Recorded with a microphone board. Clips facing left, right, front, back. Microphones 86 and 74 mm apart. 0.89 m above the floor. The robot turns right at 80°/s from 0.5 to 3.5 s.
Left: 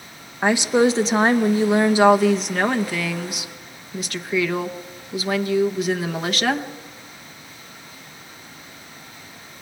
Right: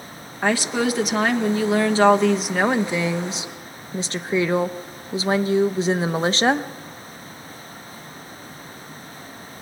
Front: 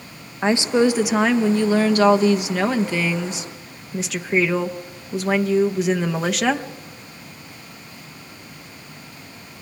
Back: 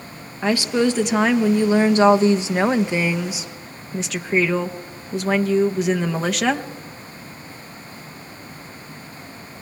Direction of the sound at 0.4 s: 30° left.